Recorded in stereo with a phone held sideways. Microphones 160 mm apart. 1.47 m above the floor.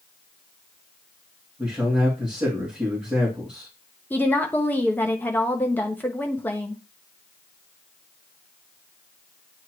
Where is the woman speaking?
10° left (ahead or behind), 0.8 m.